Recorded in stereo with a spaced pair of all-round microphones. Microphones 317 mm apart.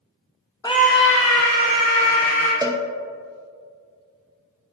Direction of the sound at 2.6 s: 10° right (ahead or behind).